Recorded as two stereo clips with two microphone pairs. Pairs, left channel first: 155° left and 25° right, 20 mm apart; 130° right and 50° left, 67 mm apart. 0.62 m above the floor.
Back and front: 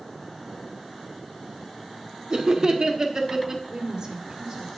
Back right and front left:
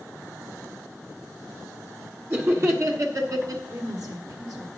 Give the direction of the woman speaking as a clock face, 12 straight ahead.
11 o'clock.